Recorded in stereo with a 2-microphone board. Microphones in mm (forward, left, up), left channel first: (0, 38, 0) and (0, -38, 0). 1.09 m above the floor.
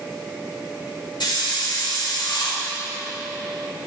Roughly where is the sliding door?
I don't hear a sliding door.